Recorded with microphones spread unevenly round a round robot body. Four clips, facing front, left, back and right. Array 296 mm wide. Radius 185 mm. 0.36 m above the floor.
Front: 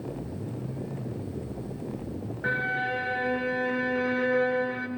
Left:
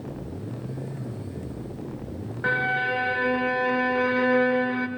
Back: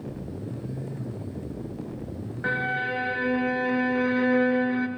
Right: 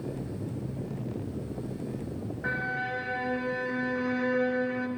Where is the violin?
90° left, 1.4 m.